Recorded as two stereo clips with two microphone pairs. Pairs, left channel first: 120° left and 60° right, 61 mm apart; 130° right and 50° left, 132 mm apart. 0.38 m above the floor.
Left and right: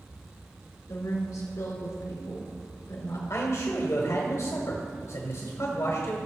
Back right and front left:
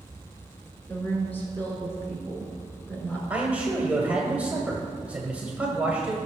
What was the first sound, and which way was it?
A woman speaking, 155° left.